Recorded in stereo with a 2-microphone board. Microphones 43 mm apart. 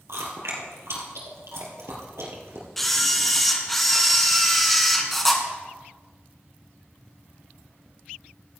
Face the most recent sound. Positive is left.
turn(degrees=5)  # may be behind; listen again after turning